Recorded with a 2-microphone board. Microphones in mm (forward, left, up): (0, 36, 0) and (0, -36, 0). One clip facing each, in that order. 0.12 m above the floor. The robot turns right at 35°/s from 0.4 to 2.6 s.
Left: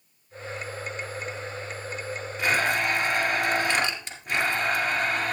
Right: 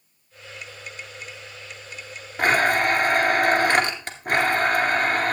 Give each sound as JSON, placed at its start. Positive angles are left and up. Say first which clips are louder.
{"t": 2.4, "sound": "a blender", "louder": "right 5 dB", "side_deg": -50, "distance_m": 2.0}